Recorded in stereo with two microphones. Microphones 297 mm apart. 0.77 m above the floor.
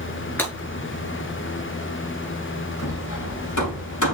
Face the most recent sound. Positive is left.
turn(degrees=85)